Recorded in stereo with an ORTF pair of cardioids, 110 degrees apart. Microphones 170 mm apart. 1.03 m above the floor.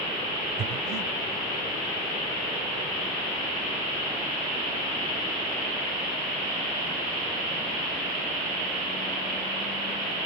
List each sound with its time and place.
0.6 s breathing: 65° right, 1.9 m